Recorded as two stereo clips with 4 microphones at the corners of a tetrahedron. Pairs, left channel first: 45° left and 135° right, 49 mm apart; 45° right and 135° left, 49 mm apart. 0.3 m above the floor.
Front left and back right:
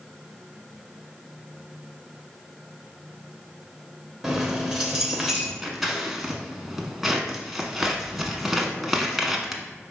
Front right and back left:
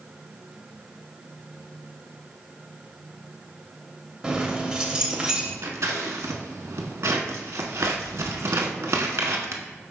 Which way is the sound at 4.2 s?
165° left.